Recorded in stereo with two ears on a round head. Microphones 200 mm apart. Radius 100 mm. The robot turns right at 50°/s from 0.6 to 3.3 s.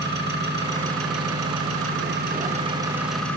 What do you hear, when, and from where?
0.0 s an engine running: 130° right, 5.5 m; by 3.4 s 5° left, 5.5 m